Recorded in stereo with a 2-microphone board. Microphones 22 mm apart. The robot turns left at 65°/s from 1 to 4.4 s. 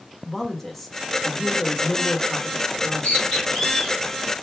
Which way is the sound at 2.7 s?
80° left.